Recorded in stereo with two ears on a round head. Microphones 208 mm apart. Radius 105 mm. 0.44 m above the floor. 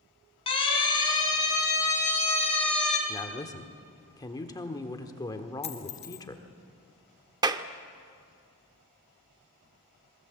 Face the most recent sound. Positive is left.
turn(degrees=-15)  # may be behind; listen again after turning